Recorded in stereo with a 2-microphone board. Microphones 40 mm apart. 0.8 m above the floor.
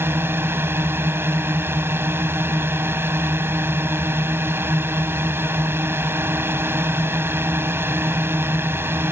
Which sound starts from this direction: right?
A drone, at 0.0 s.